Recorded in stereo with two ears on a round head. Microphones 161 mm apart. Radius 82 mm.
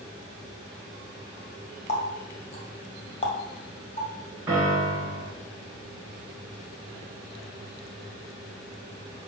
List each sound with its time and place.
1.9 s a running tap: 35° left (ahead or behind), 1.7 m
4.5 s a piano: 10° right (ahead or behind), 2.5 m